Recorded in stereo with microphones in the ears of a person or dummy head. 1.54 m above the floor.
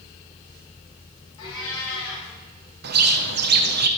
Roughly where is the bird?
Right.